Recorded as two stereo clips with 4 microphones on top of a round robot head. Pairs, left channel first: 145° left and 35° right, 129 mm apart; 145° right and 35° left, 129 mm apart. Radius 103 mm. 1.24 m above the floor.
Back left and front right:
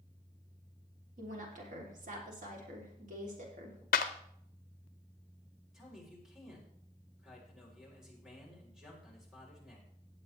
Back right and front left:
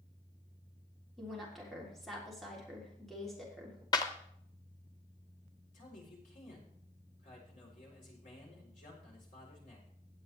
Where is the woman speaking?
55° right, 3.5 m.